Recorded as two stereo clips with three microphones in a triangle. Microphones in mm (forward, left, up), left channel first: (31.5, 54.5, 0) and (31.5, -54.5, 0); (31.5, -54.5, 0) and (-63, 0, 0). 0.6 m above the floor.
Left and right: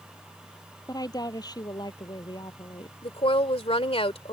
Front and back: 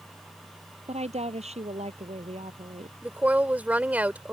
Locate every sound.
0.9 s a woman speaking: 145° left; by 2.9 s 135° left
3.0 s a woman speaking: 75° left